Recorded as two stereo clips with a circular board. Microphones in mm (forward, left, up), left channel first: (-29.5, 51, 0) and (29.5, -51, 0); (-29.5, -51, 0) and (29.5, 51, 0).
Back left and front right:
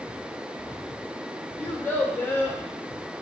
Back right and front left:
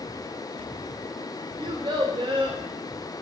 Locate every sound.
1.6 s a child speaking: 55° left, 0.7 m